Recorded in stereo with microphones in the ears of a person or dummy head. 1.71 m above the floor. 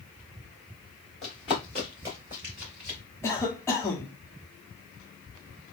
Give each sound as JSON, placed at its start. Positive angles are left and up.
{"t": 1.2, "sound": "running footsteps", "side_deg": 10, "distance_m": 1.7}
{"t": 3.2, "sound": "a cough", "side_deg": 15, "distance_m": 0.9}